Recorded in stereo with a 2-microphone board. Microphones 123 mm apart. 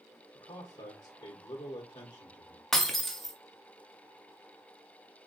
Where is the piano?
I don't hear a piano.